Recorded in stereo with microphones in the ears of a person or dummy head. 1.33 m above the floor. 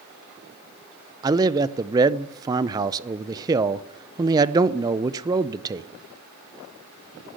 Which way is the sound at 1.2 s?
20° right (ahead or behind).